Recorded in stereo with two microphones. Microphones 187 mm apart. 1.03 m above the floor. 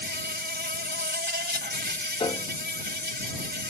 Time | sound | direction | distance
0.0 | an insect | 65° right (ahead or behind) | ?
2.2 | a piano | 25° left (ahead or behind) | ?